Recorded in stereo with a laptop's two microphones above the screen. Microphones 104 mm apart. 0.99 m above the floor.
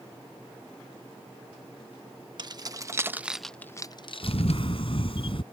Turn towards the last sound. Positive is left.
turn(degrees=55)  # may be behind; listen again after turning